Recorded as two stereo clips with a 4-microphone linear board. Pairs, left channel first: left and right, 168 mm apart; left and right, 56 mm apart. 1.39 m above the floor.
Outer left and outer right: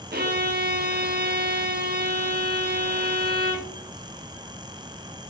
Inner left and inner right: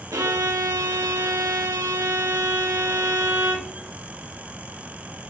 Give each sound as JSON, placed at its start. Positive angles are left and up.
{"t": 0.1, "sound": "a violin", "side_deg": -70, "distance_m": 0.7}